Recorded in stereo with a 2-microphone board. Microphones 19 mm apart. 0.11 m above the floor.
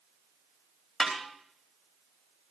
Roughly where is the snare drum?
Left.